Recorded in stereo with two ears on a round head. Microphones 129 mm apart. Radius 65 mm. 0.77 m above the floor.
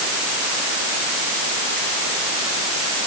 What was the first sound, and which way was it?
Only background noise.